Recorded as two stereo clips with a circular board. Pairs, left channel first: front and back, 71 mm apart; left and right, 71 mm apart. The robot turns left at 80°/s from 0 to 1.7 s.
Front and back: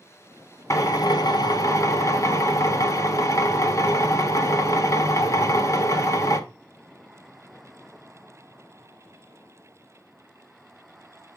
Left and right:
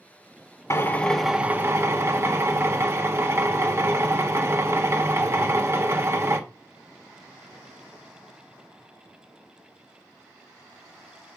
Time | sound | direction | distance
0.7 | a drill | 40° left | 1.3 m